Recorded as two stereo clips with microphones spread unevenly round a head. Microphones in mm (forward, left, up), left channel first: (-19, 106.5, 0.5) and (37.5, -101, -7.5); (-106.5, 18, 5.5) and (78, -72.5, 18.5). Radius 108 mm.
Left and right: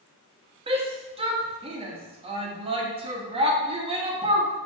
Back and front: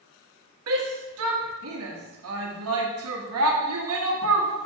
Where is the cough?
No cough in this recording.